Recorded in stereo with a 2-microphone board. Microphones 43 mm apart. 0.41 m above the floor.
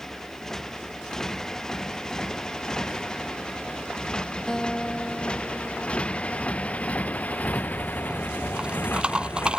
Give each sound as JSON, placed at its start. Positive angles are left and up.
{"t": 0.0, "sound": "a motorcycle", "side_deg": 10}
{"t": 4.5, "sound": "a guitar", "side_deg": 15}
{"t": 7.4, "sound": "a rattle", "side_deg": -20}